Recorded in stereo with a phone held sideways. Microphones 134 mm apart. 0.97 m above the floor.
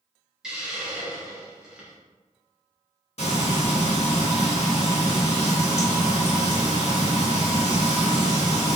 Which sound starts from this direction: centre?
A hiss, at 0.4 s.